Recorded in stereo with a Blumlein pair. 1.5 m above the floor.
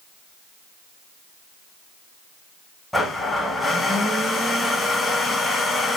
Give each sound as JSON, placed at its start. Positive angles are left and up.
{"t": 2.9, "sound": "a blender", "azimuth_deg": 5, "distance_m": 1.0}